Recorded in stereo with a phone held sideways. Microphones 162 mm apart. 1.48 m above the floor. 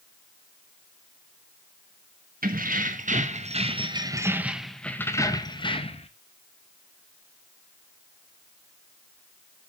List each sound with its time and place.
2.4 s keys jangling: 65° right (ahead or behind), 1.4 m; by 6.1 s 40° left (ahead or behind), 1.3 m